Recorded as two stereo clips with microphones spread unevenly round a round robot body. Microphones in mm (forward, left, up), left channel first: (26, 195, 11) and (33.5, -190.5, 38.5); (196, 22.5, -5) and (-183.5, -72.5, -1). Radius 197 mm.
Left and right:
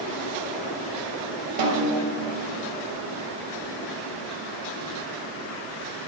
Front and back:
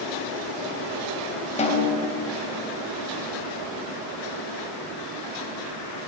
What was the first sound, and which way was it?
A snare drum, 60° right.